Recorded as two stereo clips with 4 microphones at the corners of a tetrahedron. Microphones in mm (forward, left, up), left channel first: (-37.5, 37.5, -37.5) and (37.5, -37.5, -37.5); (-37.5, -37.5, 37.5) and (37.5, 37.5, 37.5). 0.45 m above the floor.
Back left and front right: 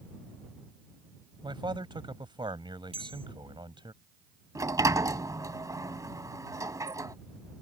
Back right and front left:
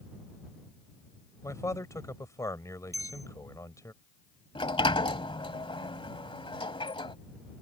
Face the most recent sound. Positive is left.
turn(degrees=-100)